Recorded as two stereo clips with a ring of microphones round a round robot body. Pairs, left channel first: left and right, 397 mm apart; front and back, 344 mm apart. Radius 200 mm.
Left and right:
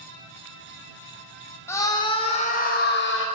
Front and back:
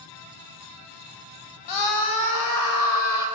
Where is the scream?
5° left, 4.5 m; by 3.3 s 30° left, 4.5 m.